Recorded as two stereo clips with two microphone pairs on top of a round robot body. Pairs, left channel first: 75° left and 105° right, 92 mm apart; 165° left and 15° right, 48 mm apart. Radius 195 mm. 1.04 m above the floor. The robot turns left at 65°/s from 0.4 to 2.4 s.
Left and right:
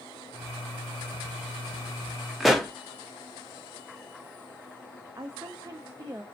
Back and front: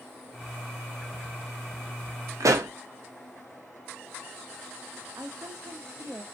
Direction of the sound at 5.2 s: 45° right.